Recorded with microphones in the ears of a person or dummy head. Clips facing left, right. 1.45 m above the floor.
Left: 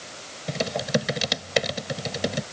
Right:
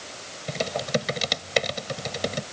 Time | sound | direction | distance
0.5 | typing on a keyboard | 10° left (ahead or behind) | ?